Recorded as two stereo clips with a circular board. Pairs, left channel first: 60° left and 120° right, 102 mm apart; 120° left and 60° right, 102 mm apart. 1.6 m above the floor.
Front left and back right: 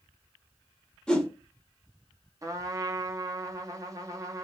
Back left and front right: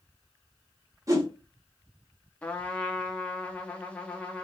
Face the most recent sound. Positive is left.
turn(degrees=-165)